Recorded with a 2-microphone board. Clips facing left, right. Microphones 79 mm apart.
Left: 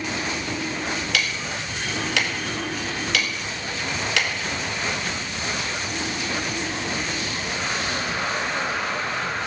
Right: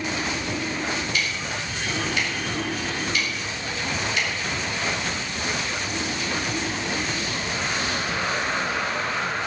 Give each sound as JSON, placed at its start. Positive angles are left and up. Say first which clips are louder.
{"t": 1.1, "sound": "ticking", "louder": "left 1 dB", "side_deg": 85, "distance_m": 1.9}